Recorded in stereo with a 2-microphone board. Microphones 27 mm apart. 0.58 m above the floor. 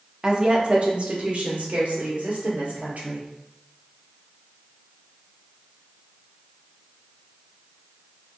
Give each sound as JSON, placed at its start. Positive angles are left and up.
{"t": 0.2, "sound": "a woman speaking", "side_deg": -25, "distance_m": 0.8}